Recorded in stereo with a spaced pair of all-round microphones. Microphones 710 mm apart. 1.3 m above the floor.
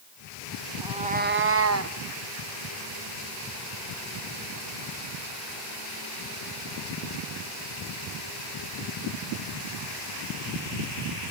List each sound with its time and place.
0.8 s a cat meowing: 5° right (ahead or behind), 0.5 m; by 2.0 s 25° right (ahead or behind), 0.7 m